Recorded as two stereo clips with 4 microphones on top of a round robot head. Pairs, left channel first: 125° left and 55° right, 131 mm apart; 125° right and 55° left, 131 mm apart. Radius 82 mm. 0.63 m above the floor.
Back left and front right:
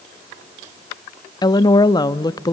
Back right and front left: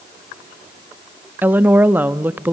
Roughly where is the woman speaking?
Behind left.